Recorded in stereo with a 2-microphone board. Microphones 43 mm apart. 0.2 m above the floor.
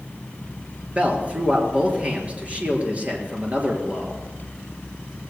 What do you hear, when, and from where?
0.9 s a man speaking: 30° right (ahead or behind), 4 m